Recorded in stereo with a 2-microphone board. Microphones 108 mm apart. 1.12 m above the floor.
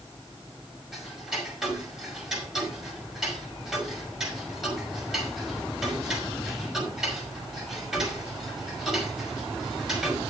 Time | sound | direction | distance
0.9 | ticking | 5° right (ahead or behind) | 5.5 m